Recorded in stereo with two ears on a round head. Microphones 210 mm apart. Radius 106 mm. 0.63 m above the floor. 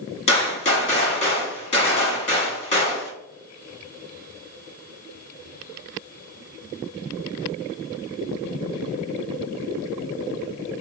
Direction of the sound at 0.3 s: 30° left (ahead or behind).